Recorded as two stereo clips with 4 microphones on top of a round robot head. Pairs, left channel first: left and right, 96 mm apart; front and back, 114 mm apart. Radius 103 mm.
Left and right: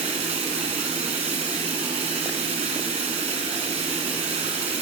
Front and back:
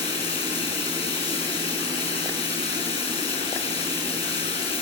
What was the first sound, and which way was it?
Running water, 55° right.